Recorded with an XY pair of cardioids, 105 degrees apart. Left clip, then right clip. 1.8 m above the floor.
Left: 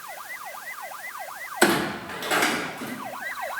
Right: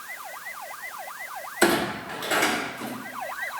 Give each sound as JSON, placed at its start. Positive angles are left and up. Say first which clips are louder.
{"t": 1.6, "sound": "a clunk", "louder": "left 1 dB", "azimuth_deg": 15, "distance_m": 1.1}